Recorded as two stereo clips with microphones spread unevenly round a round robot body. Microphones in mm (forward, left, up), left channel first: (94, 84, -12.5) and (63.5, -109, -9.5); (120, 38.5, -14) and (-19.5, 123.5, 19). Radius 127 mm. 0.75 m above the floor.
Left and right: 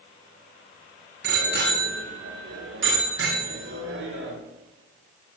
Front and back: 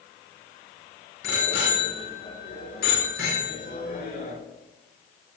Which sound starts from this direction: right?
A bicycle bell, at 1.2 s.